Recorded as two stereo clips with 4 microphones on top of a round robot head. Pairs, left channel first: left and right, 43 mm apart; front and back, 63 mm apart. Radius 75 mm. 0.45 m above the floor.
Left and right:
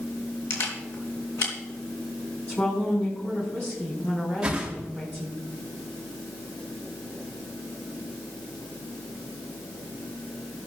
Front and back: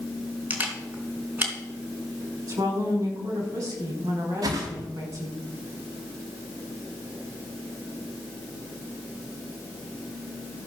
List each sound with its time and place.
0.5 s a camera shutter: 120° left, 3.5 m
2.5 s a woman speaking: 155° left, 6 m
4.4 s a whoosh: 165° right, 3.5 m